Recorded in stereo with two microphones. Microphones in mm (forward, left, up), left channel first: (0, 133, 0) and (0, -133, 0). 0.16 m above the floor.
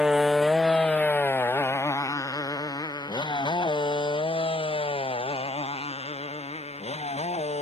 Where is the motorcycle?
5° right (ahead or behind); by 7.6 s 25° left (ahead or behind).